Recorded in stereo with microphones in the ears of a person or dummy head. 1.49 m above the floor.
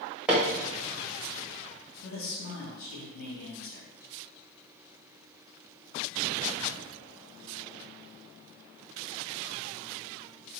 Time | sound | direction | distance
0.3 | hammering | 5° right (ahead or behind) | 1.1 m
2.0 | a man speaking | 80° left | 2.0 m